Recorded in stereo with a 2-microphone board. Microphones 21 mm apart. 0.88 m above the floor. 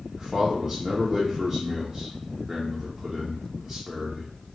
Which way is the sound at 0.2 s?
25° right (ahead or behind).